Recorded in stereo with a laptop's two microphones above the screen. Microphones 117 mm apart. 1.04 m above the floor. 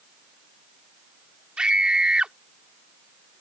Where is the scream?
5° right (ahead or behind).